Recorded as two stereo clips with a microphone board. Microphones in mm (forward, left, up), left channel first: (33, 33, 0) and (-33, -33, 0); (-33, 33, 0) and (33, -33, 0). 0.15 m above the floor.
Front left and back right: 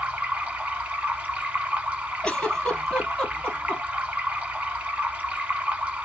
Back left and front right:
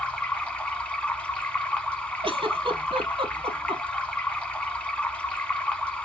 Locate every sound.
0.0 s running water: 175° right, 1.2 m
2.2 s a giggle: 35° right, 2.5 m